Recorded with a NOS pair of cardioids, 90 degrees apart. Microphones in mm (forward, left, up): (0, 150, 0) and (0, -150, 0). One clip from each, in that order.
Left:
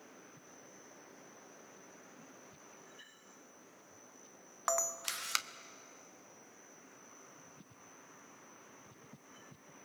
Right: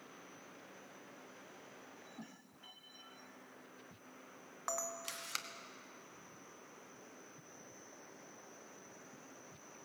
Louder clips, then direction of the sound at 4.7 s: Left 6 dB; 40° left.